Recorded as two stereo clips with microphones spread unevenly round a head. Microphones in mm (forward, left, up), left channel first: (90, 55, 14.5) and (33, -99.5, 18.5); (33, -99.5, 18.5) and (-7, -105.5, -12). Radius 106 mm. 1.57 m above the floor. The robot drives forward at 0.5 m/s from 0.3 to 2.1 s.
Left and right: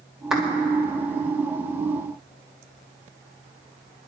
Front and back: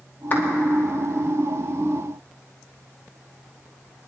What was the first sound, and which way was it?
A clap, 20° right.